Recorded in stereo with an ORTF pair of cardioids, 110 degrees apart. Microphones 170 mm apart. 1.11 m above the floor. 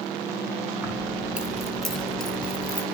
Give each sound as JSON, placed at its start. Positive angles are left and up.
{"t": 0.8, "sound": "keys jangling", "azimuth_deg": -15, "distance_m": 4.0}